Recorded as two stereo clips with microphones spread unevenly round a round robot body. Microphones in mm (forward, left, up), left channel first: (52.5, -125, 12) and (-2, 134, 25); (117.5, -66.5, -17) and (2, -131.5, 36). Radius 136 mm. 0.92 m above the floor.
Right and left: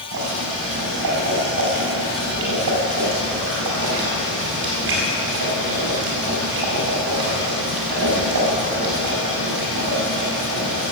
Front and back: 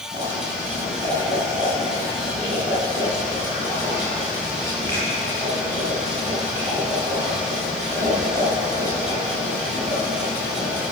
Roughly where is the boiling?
Behind left.